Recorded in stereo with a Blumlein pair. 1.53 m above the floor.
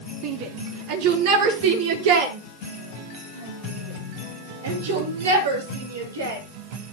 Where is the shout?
40° right, 4 m; by 6.4 s 70° right, 7.5 m.